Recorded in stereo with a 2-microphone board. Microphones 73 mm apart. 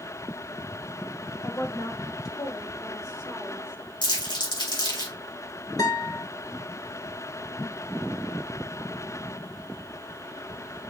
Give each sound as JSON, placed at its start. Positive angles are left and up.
{"t": 1.4, "sound": "a woman speaking", "side_deg": 55, "distance_m": 1.8}
{"t": 4.0, "sound": "crumpling", "side_deg": 85, "distance_m": 5.0}
{"t": 5.8, "sound": "a guitar", "side_deg": 55, "distance_m": 3.5}